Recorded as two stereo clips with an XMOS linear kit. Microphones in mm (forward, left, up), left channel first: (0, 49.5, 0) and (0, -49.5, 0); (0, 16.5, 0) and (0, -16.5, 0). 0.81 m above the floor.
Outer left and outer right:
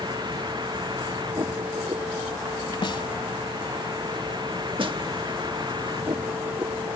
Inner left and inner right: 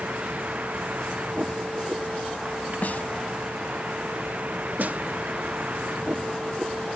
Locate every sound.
0.0 s a vehicle: 50° right (ahead or behind)
2.8 s a snare drum: 55° left (ahead or behind)
4.8 s a snare drum: 60° right (ahead or behind)